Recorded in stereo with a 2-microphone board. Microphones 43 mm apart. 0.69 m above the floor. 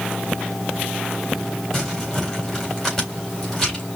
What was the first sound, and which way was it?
Crumpling, 5° left (ahead or behind).